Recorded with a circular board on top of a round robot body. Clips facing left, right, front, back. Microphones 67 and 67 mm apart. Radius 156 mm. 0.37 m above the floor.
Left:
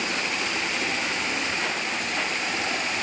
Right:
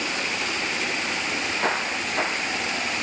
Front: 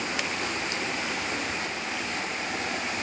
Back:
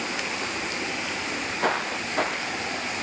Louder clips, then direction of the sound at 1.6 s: Right 3 dB, back 6 dB; 145° right.